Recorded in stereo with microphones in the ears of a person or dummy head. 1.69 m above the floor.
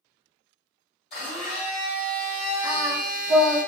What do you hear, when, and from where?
1.1 s a blender: 35° left (ahead or behind), 2.0 m
2.6 s singing: 5° right (ahead or behind), 0.9 m